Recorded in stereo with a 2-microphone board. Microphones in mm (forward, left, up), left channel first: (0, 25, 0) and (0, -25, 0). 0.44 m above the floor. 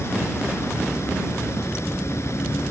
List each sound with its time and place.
0.0 s running water: 70° left (ahead or behind)